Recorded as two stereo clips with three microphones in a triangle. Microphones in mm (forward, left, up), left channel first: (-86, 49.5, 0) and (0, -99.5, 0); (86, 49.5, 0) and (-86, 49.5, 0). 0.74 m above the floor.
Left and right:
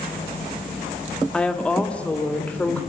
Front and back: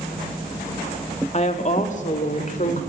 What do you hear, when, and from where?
1.3 s a woman speaking: 35° left, 1.7 m; by 2.8 s 40° left, 3 m